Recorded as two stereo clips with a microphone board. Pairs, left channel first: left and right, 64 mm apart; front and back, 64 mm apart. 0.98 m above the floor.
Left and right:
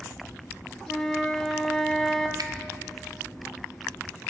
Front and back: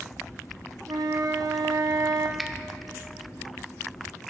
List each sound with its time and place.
0.9 s a flute: 170° left, 0.7 m
2.4 s a finger snap: 90° right, 0.5 m